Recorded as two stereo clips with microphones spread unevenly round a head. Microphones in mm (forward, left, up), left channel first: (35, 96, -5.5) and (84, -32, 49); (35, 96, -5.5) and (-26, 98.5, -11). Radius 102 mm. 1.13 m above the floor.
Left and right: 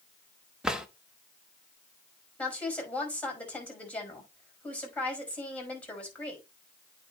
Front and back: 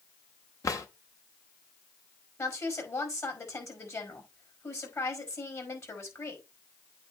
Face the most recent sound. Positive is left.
turn(degrees=30)